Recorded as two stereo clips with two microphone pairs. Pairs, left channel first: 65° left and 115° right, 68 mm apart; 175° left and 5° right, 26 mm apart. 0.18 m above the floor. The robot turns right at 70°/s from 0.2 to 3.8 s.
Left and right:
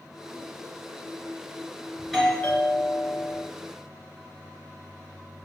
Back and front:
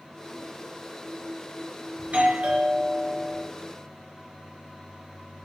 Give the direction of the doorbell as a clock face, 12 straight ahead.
1 o'clock.